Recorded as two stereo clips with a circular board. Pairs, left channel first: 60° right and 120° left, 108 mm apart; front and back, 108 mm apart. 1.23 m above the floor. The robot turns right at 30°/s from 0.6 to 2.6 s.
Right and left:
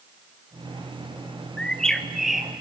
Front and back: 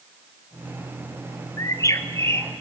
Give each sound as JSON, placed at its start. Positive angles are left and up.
{"t": 1.6, "sound": "a bird", "azimuth_deg": 10, "distance_m": 0.6}